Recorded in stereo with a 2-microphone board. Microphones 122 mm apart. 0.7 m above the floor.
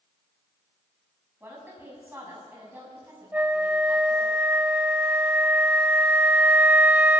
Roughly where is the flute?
Centre.